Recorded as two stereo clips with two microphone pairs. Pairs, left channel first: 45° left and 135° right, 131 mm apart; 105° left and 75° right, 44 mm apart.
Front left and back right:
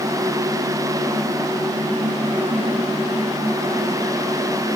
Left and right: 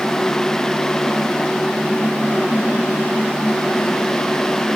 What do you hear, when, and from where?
Only background noise.